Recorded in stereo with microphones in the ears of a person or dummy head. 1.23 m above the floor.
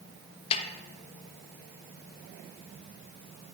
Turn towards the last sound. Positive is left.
turn(degrees=30)  # may be behind; listen again after turning